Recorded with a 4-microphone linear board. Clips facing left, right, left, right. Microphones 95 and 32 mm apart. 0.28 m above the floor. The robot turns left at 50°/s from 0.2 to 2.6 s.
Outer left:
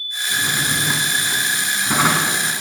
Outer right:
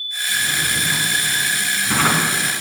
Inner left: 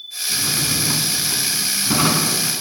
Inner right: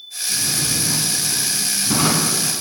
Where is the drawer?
100° left, 1.1 m; by 2.4 s 5° right, 1.1 m.